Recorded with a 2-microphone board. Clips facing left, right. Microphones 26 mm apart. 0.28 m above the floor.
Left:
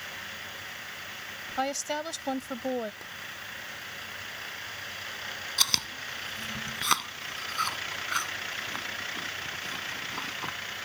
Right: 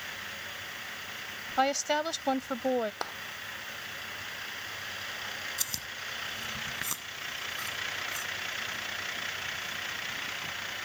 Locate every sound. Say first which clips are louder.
1.6 s a woman speaking: right 4 dB; 15° right (ahead or behind)
3.0 s a clap: right 6 dB; 65° right (ahead or behind)
5.6 s chewing: left 9 dB; 65° left (ahead or behind)